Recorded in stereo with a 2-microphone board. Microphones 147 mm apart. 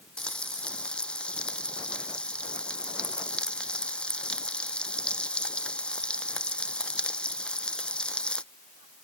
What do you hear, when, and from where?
0.2 s frying: 5° left (ahead or behind)